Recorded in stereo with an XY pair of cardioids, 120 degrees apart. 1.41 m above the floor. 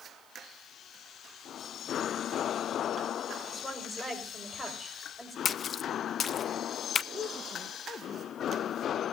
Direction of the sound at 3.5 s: 5° left.